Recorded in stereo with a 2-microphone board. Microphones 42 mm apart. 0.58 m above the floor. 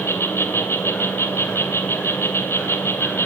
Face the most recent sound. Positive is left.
turn(degrees=70)  # may be behind; listen again after turning